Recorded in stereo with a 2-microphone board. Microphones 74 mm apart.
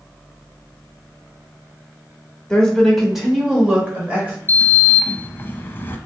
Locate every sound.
2.5 s a woman speaking: 10° left (ahead or behind), 1.0 m; by 4.4 s 20° right (ahead or behind), 1.4 m
4.5 s a sliding door: 30° left (ahead or behind), 0.5 m